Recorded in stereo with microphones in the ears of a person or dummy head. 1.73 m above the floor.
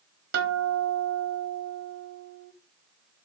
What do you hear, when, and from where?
0.3 s a guitar: 60° right (ahead or behind), 0.9 m